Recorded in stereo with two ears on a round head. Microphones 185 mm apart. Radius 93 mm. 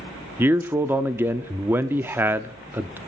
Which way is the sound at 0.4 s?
10° right (ahead or behind).